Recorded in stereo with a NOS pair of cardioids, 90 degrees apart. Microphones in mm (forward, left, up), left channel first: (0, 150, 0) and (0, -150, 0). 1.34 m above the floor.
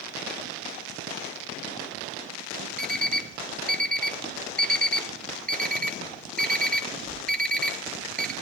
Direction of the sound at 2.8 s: 5° left.